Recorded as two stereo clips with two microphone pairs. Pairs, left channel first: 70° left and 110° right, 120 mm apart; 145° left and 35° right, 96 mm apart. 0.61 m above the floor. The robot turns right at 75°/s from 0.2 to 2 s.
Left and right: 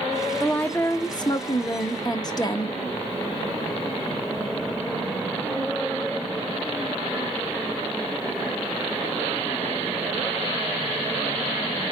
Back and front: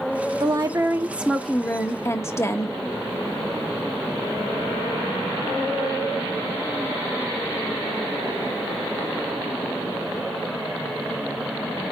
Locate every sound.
0.4 s a woman speaking: 15° right, 1.2 m; by 2.8 s 105° left, 1.2 m